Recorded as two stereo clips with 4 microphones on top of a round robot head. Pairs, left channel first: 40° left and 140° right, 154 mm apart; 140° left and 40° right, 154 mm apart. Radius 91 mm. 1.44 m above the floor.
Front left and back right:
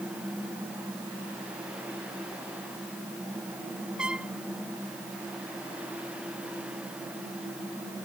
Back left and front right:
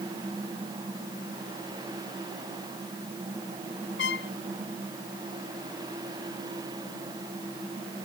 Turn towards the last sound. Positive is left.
turn(degrees=135)